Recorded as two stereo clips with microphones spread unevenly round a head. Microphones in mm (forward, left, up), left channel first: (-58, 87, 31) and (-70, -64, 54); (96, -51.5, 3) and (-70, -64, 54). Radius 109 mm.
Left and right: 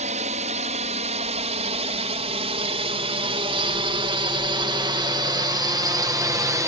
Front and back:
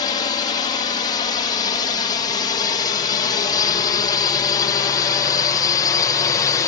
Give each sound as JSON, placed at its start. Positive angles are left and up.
{"t": 0.0, "sound": "a drone", "azimuth_deg": -45}